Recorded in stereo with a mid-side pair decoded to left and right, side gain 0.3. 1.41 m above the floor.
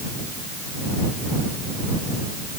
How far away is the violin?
I don't hear a violin.